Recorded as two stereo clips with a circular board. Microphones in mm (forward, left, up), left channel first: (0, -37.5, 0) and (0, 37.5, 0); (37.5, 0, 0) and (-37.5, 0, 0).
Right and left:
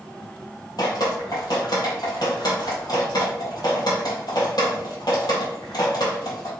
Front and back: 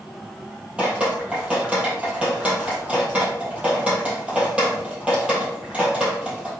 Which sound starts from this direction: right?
Dripping, at 0.8 s.